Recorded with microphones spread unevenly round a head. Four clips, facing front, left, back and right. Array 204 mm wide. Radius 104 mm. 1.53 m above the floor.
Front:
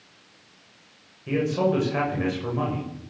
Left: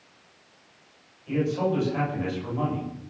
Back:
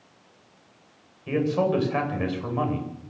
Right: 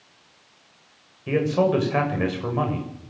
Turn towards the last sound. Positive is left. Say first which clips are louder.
# right 5 dB, even
turn(degrees=-85)